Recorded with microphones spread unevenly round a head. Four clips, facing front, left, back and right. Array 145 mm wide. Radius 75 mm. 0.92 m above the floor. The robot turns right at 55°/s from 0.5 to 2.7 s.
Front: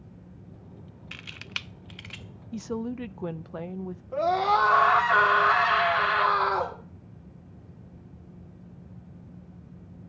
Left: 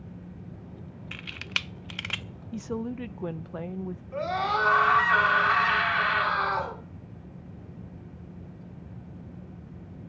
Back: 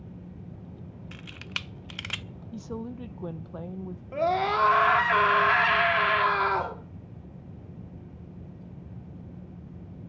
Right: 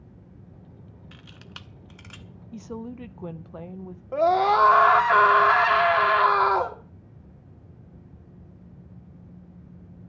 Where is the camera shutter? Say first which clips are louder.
Left 10 dB, even; 55° left, 0.5 m; by 2.2 s 115° left, 0.5 m.